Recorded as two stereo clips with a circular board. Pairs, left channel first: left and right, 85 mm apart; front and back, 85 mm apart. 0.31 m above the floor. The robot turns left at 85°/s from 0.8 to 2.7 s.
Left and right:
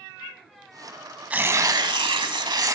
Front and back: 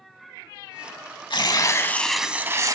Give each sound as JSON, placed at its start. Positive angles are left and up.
{"t": 1.3, "sound": "tearing paper", "azimuth_deg": -15, "distance_m": 0.7}